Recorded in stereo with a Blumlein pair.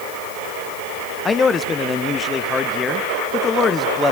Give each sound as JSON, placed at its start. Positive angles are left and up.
{"t": 1.2, "sound": "a man speaking", "azimuth_deg": 20, "distance_m": 1.1}